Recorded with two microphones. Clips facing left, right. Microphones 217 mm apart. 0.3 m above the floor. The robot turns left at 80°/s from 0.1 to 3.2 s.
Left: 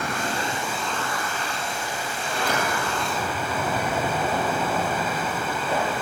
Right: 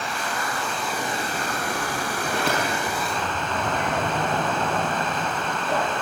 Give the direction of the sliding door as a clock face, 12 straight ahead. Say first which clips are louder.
Even; 3 o'clock.